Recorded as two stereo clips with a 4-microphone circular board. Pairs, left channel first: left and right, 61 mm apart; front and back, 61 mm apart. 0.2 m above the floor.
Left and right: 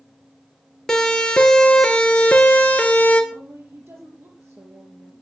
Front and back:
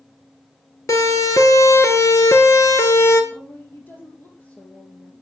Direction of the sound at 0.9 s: 10° left.